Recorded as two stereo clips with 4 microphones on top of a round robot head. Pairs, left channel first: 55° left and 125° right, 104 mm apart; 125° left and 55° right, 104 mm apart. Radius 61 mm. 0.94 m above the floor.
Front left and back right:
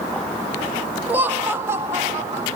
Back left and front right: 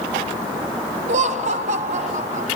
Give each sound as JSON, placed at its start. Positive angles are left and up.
{"t": 1.1, "sound": "laughter", "azimuth_deg": -50, "distance_m": 1.1}